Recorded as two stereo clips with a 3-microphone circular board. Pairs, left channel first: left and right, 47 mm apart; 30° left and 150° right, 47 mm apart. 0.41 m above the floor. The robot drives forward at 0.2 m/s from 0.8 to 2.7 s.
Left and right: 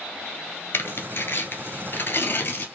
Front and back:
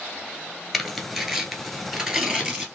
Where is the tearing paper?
120° left, 1.0 m; by 2.7 s 135° left, 1.2 m.